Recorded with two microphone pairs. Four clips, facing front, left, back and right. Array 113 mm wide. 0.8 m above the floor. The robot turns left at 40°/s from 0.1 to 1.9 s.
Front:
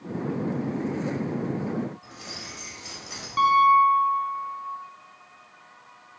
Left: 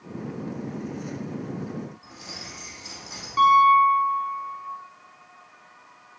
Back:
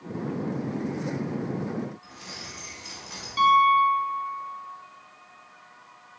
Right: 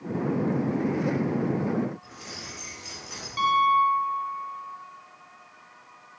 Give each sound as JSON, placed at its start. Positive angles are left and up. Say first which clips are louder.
{"t": 2.0, "sound": "keys jangling", "louder": "even, front 1 dB", "azimuth_deg": -5, "distance_m": 2.0}
{"t": 3.4, "sound": "a piano", "louder": "left 5 dB, front 1 dB", "azimuth_deg": 25, "distance_m": 2.5}